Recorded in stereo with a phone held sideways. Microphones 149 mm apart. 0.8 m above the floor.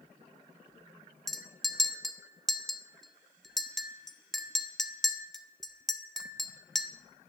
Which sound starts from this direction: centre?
A clink, at 1.3 s.